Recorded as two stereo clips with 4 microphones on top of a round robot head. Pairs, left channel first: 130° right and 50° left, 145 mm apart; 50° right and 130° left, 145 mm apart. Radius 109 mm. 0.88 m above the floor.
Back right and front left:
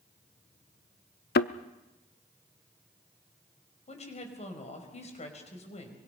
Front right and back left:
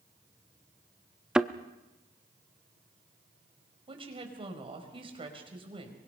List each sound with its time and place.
1.4 s a thud: 145° right, 0.6 m
3.9 s a woman speaking: 175° right, 4.5 m